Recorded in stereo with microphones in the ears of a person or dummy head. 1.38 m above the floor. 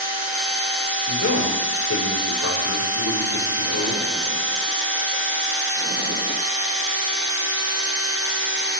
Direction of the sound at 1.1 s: 85° left.